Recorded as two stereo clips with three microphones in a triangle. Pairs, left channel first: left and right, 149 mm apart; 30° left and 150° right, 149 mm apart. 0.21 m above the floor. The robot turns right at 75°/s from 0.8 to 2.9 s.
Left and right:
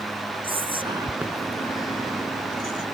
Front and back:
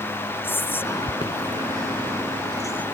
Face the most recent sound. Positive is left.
turn(degrees=115)